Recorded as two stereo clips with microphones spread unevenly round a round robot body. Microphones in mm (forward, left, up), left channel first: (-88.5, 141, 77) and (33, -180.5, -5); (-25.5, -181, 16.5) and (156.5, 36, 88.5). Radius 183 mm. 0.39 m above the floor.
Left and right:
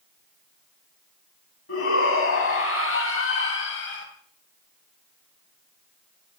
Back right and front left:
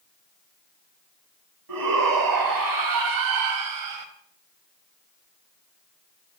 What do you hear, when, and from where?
1.7 s a shout: 55° left, 4 m; by 4.1 s 45° left, 2.5 m